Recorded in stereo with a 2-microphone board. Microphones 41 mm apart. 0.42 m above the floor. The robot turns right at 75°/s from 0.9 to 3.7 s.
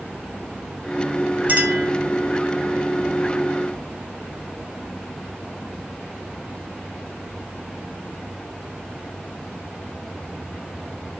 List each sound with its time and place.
1.5 s a clink: 50° right, 1.5 m; by 1.9 s 15° right, 1.5 m